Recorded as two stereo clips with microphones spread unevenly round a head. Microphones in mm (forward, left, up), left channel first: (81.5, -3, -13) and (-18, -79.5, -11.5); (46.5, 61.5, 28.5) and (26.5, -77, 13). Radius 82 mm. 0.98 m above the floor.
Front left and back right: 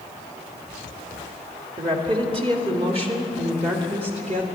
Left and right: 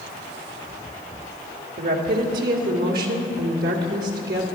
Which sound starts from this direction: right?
A woman speaking, at 1.8 s.